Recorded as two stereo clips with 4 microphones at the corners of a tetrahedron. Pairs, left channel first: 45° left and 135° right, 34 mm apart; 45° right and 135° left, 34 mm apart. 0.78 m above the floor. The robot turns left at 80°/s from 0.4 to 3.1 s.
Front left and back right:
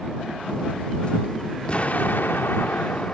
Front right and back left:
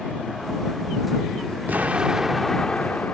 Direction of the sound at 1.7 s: 100° left.